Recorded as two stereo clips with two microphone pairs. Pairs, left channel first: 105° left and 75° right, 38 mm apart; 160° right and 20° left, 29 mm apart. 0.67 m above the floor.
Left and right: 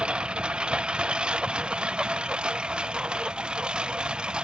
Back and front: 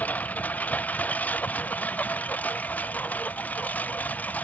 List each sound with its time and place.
0.0 s a lawn mower: 135° right; by 4.5 s 140° right